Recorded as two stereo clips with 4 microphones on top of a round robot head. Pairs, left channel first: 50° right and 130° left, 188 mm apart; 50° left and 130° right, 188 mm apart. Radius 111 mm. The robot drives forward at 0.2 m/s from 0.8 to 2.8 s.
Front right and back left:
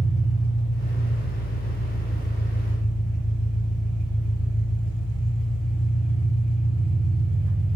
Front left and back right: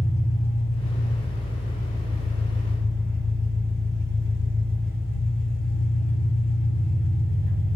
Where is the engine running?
165° left, 1.9 m.